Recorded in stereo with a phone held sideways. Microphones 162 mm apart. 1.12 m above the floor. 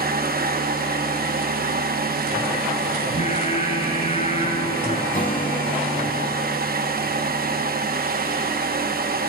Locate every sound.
0.0 s a fan: 65° right (ahead or behind), 1.1 m
3.0 s singing: 45° left (ahead or behind), 5 m
5.1 s a guitar: 55° left (ahead or behind), 2 m